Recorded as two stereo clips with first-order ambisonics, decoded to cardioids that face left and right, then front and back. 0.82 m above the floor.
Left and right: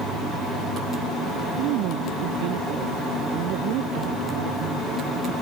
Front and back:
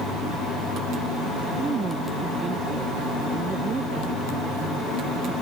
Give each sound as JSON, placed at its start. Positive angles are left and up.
{"t": 1.6, "sound": "a man speaking", "azimuth_deg": -110}